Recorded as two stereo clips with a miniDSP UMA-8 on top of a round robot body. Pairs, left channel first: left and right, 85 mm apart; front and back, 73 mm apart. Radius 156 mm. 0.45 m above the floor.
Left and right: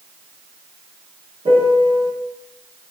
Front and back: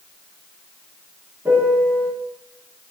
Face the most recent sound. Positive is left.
turn(degrees=-115)